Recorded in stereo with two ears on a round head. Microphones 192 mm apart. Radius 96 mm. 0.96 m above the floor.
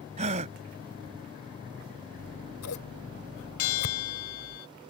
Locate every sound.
0.2 s a gasp: 35° right (ahead or behind)
2.2 s scissors: 75° left (ahead or behind)
3.6 s a bell: 75° left (ahead or behind)